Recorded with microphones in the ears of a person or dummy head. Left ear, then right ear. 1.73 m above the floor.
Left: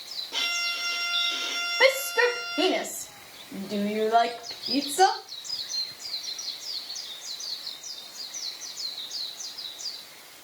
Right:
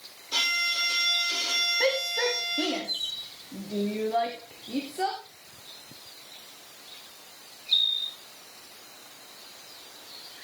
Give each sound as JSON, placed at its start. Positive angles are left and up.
{"t": 0.3, "sound": "a violin", "side_deg": -80, "distance_m": 7.0}
{"t": 1.8, "sound": "a shout", "side_deg": 35, "distance_m": 1.2}